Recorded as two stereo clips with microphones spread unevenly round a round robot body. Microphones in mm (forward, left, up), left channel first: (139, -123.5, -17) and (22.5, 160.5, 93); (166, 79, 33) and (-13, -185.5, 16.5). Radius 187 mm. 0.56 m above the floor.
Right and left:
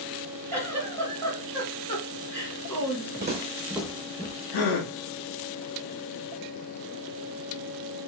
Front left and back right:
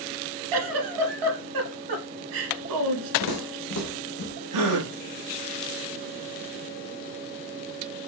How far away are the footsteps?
About 1.4 m.